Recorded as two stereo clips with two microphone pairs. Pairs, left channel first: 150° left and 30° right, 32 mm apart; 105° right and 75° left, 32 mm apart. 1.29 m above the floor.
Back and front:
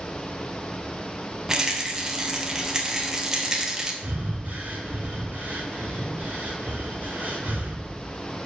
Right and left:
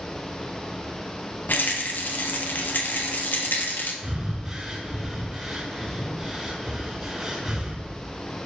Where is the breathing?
Straight ahead, 3.5 m.